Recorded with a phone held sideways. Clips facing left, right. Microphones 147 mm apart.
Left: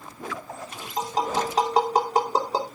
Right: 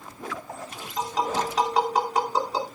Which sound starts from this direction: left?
Tapping, at 1.0 s.